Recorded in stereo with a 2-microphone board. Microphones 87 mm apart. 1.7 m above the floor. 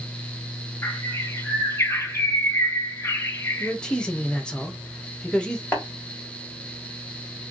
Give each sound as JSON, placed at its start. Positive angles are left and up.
{"t": 0.8, "sound": "a bird", "side_deg": 30, "distance_m": 0.5}
{"t": 3.6, "sound": "a man speaking", "side_deg": 10, "distance_m": 0.6}
{"t": 5.7, "sound": "tapping", "side_deg": 15, "distance_m": 1.5}